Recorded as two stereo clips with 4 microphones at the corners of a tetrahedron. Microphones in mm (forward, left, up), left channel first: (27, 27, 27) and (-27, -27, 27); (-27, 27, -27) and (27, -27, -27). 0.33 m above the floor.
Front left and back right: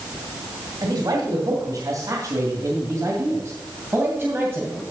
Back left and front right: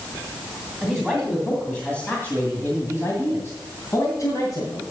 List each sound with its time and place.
0.8 s a man speaking: 140° right, 2.5 m; by 4.8 s 160° left, 2.5 m